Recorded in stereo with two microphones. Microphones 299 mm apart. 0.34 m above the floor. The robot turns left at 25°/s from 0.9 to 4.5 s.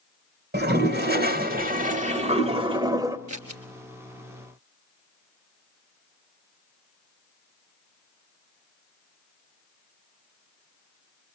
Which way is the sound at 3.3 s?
70° right (ahead or behind).